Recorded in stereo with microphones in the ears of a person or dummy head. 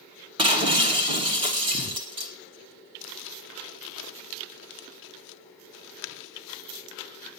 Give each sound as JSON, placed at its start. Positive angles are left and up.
{"t": 0.4, "sound": "breaking glass", "side_deg": -25, "distance_m": 1.7}
{"t": 3.0, "sound": "crumpling", "side_deg": 65, "distance_m": 0.8}